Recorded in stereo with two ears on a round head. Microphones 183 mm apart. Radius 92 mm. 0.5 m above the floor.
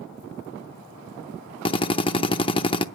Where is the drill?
25° left (ahead or behind), 0.6 m.